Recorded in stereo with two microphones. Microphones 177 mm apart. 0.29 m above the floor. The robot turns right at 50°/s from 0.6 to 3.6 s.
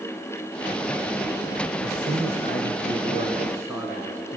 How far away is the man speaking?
About 2.5 m.